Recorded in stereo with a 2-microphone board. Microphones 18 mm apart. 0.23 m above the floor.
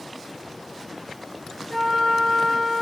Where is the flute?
25° left (ahead or behind), 2 m.